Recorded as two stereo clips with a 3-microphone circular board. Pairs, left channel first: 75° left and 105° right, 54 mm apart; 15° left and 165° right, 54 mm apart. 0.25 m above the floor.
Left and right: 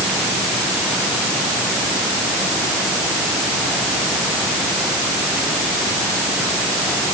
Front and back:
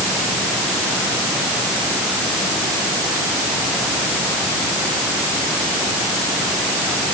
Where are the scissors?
I don't hear scissors.